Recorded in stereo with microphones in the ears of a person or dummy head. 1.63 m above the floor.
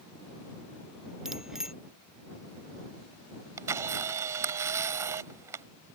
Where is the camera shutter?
15° right (ahead or behind).